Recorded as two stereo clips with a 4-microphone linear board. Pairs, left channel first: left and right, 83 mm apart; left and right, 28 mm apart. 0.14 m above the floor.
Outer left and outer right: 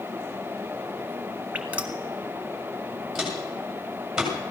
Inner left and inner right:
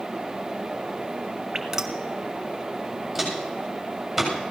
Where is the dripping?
20° right (ahead or behind), 1.2 m.